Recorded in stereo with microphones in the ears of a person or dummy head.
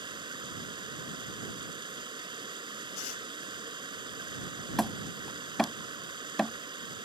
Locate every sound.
0.0 s running water: 25° right (ahead or behind)
3.0 s tearing paper: 75° left (ahead or behind)
4.8 s hammering: centre (ahead or behind)